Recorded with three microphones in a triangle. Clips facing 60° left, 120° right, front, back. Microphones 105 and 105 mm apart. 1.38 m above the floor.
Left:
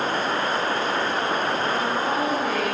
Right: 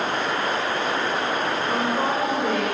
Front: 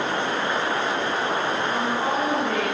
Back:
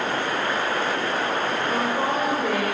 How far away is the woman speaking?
About 7.5 m.